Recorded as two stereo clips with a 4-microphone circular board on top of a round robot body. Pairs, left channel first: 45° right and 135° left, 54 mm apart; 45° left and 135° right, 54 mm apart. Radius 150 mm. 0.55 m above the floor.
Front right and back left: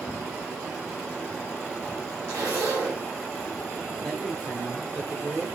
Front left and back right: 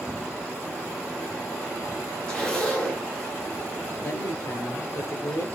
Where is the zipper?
120° left, 2 m.